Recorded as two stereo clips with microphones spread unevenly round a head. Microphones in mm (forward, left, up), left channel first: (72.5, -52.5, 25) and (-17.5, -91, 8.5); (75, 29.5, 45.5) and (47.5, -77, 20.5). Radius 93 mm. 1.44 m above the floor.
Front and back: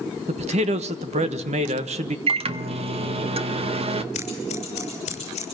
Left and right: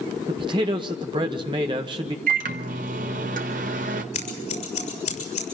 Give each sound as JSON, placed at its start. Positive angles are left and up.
{"t": 0.3, "sound": "a man speaking", "azimuth_deg": -165, "distance_m": 1.3}
{"t": 2.3, "sound": "a microwave", "azimuth_deg": -135, "distance_m": 1.1}
{"t": 4.1, "sound": "scissors", "azimuth_deg": 70, "distance_m": 6.0}